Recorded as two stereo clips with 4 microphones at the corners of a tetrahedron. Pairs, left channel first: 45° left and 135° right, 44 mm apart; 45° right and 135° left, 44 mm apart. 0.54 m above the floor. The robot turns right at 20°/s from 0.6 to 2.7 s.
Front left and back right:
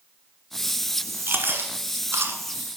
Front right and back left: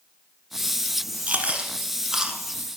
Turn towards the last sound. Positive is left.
turn(degrees=-140)